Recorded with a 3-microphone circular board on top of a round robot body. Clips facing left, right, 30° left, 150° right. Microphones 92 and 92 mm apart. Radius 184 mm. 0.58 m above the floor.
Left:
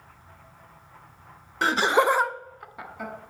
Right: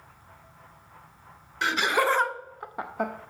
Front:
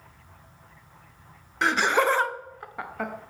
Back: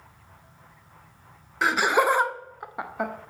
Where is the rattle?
I don't hear a rattle.